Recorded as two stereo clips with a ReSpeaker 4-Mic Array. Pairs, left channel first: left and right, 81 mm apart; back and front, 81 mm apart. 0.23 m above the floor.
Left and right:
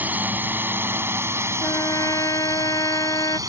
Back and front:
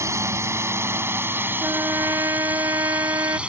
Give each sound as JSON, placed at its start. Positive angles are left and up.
{"t": 0.0, "sound": "a drone", "azimuth_deg": -30}
{"t": 1.6, "sound": "a trumpet", "azimuth_deg": 50}